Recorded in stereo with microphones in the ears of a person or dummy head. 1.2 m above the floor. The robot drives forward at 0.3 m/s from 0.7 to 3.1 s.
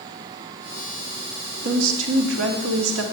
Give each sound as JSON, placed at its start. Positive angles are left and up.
{"t": 1.6, "sound": "a woman speaking", "side_deg": -75, "distance_m": 2.0}